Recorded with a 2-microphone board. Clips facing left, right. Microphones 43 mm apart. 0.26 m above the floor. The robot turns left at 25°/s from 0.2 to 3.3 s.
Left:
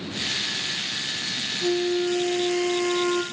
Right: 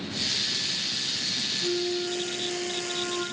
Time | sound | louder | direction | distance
1.6 | a flute | left 6 dB | 145° left | 2.5 m